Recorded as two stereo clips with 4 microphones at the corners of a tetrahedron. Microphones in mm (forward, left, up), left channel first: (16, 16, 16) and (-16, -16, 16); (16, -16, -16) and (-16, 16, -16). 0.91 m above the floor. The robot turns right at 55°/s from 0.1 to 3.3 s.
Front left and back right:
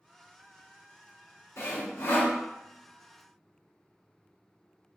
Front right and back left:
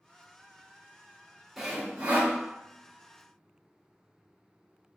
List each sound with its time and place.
1.6 s sawing: 50° left, 0.6 m; by 2.3 s 95° left, 0.6 m